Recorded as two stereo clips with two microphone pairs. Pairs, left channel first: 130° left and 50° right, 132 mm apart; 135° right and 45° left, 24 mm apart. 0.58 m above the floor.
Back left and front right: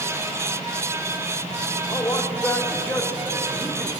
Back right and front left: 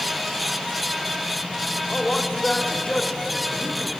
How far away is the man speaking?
About 1.5 m.